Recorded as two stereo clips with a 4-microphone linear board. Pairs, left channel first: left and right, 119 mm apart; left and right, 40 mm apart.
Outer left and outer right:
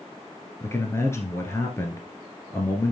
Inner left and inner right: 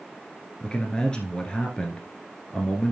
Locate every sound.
0.6 s a man speaking: 20° left (ahead or behind), 1.7 m